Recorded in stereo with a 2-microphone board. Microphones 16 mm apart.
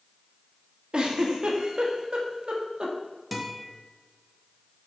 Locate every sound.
0.9 s a giggle: 55° right (ahead or behind), 1.6 m
3.3 s a guitar: 10° right (ahead or behind), 1.7 m